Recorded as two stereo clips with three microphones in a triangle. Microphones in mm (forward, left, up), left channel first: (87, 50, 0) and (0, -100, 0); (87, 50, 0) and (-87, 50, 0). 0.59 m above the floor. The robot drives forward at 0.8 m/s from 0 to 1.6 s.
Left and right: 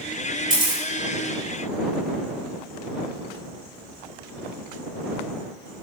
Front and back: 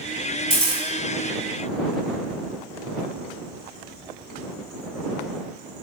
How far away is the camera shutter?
About 1.9 m.